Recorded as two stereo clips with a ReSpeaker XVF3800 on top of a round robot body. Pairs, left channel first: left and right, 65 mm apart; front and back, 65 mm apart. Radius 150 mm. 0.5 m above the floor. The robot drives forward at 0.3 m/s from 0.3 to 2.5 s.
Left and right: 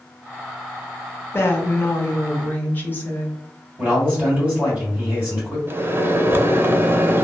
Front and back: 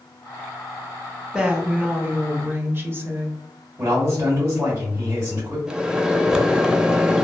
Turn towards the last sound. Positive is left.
turn(degrees=-110)